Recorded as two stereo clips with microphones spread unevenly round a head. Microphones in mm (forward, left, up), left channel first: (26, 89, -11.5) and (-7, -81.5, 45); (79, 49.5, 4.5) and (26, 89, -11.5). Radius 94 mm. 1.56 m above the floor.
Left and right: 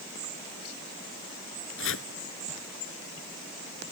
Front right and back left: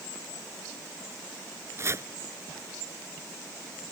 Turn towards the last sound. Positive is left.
turn(degrees=95)